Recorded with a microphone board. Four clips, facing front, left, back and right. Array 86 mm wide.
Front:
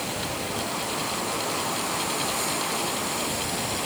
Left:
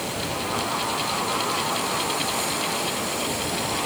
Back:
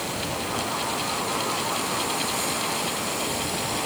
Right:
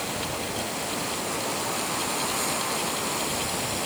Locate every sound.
Only background noise.